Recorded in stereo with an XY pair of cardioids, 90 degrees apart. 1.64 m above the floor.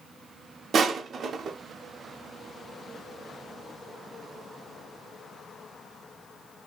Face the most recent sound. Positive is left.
turn(degrees=-60)